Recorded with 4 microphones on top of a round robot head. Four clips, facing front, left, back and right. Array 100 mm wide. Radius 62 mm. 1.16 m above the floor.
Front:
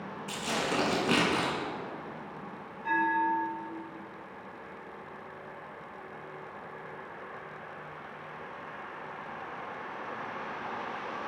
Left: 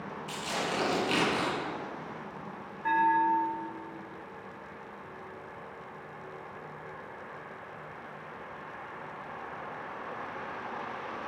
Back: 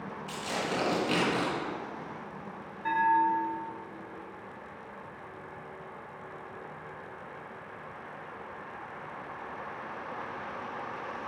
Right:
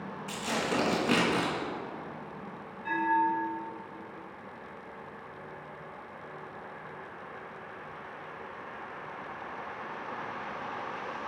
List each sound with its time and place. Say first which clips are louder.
0.3 s tearing paper: right 2 dB, front 1 dB; 45° right, 3 m
2.8 s a bell: left 2 dB, back 3 dB; 125° left, 3.5 m